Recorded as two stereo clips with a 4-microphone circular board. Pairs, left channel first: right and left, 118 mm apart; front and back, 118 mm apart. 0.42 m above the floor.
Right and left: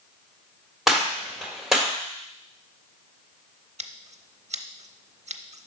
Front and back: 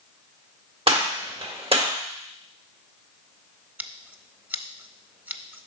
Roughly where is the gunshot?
Behind.